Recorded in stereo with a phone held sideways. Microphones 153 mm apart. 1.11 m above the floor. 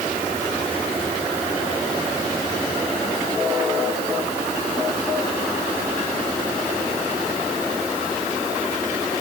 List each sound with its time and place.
Only background noise.